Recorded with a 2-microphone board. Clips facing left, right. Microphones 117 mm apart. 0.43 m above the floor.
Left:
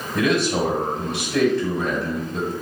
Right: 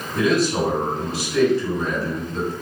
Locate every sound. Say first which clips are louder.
0.1 s a man speaking: right 1 dB; 65° left (ahead or behind), 3 m